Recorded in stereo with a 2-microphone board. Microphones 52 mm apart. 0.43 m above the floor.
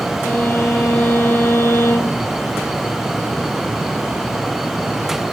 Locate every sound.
0.2 s a violin: 50° left (ahead or behind), 5 m